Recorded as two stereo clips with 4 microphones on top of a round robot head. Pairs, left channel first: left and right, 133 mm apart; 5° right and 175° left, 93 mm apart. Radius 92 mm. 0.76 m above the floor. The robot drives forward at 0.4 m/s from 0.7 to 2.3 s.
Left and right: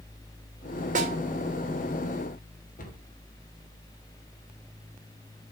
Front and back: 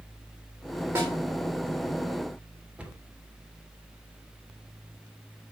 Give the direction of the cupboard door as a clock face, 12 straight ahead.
9 o'clock.